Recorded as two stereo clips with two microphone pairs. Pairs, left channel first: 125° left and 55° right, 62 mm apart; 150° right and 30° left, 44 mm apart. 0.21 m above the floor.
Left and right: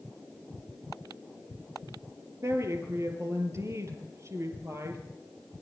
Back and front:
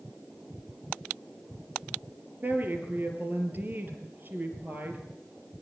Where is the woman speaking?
15° right, 4.5 m.